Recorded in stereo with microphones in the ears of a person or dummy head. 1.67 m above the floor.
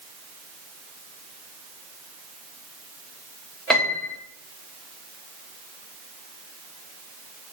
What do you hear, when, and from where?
3.7 s a piano: centre (ahead or behind), 0.7 m